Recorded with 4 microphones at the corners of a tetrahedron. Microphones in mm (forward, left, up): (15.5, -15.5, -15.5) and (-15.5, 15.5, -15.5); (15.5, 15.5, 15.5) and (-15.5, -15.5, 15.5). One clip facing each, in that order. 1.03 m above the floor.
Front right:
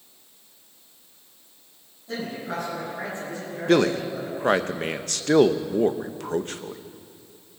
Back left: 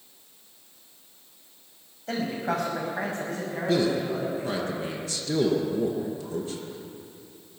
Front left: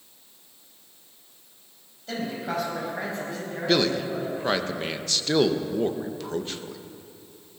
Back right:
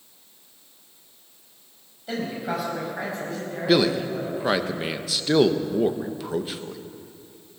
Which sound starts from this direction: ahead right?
A man speaking, at 3.7 s.